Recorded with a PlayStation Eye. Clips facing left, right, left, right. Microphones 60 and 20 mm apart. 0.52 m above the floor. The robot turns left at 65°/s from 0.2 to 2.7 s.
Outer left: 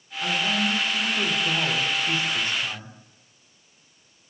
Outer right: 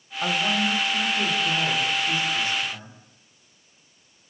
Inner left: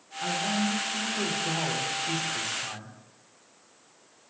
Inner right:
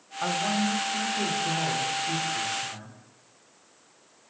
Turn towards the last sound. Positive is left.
turn(degrees=75)